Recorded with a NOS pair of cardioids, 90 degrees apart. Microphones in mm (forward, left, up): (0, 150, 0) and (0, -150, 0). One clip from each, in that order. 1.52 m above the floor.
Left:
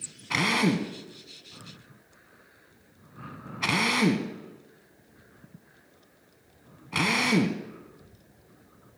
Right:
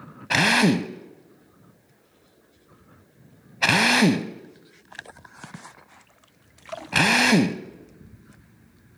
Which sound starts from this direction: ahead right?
A drill, at 0.3 s.